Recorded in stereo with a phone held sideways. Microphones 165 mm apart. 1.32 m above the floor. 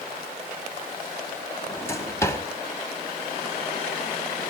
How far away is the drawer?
About 2.5 m.